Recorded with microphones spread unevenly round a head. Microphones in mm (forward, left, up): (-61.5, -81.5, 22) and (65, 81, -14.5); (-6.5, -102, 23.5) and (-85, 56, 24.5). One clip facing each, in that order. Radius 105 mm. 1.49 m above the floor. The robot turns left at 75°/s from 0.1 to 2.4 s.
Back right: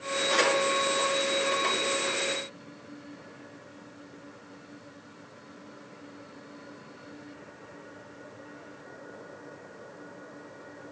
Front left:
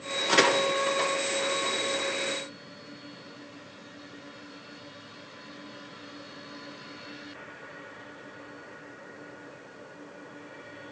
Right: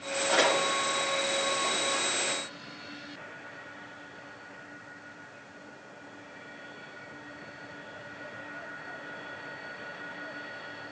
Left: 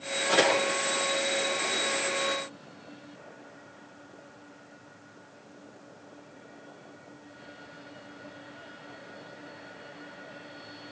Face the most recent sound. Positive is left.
turn(degrees=-100)